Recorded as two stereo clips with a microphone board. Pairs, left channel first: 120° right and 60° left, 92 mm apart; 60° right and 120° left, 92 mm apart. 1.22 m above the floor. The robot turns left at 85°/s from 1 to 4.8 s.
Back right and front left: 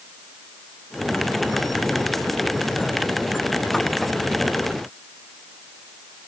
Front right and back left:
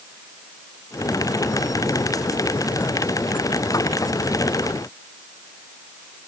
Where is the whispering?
I don't hear whispering.